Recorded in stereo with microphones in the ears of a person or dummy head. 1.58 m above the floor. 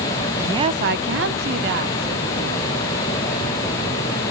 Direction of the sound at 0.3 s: 10° right (ahead or behind).